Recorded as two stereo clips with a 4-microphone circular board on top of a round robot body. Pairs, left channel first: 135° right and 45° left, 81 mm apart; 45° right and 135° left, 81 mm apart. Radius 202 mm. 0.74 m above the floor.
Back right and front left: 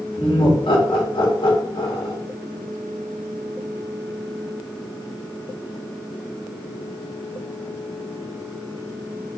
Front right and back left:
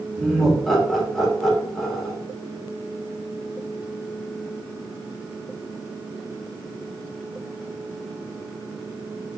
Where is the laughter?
135° right, 3 m.